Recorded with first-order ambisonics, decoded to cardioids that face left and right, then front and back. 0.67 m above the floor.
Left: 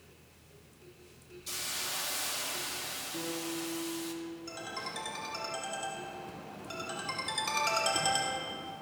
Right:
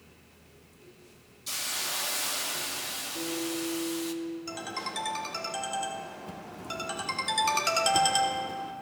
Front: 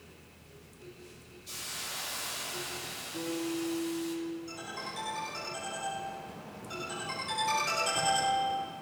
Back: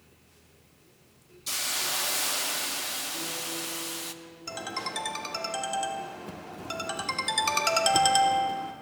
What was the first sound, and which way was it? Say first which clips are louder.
A hiss: right 4 dB, back 9 dB; 165° right.